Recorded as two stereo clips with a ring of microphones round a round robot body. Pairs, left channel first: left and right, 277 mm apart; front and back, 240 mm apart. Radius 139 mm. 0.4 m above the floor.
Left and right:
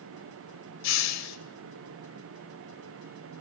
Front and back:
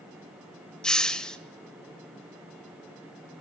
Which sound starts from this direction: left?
A hiss, at 0.8 s.